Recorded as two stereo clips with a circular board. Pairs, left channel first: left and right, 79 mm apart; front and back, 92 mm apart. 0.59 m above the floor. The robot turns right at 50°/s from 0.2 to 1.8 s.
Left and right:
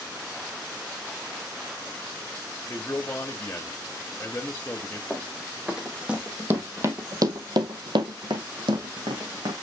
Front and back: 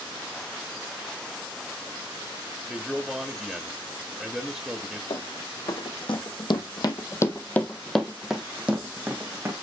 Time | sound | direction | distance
2.7 | a man speaking | 95° left | 1.2 m
5.1 | running footsteps | 5° left | 2.5 m